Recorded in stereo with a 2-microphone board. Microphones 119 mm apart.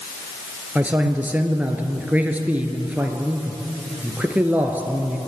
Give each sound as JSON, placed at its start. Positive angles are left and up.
{"t": 0.8, "sound": "a man speaking", "side_deg": -10, "distance_m": 1.9}